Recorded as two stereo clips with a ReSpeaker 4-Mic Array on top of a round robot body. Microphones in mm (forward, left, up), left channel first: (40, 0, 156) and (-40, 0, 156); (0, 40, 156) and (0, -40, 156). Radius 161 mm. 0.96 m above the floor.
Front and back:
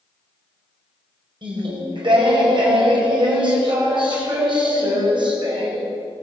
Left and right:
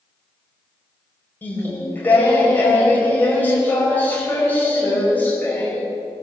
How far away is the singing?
About 5.5 m.